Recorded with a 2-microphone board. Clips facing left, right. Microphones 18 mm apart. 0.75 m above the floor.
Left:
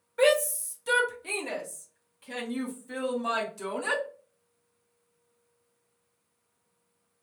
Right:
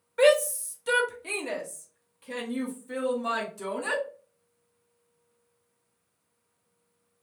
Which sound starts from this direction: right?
A shout, at 0.2 s.